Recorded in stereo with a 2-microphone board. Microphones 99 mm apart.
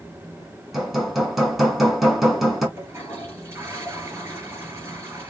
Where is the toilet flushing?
30° right (ahead or behind), 3 m.